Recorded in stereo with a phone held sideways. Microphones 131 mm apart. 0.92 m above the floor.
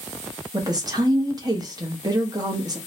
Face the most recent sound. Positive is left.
turn(degrees=-30)  # may be behind; listen again after turning